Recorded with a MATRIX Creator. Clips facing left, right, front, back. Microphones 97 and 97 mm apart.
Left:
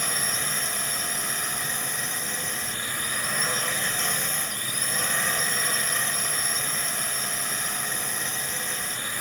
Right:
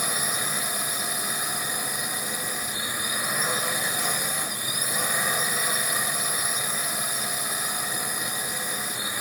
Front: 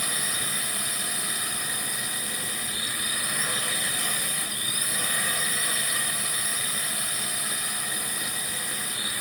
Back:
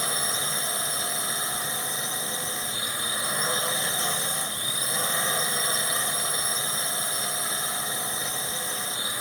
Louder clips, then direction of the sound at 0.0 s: Right 1 dB, back 3 dB; 160° right.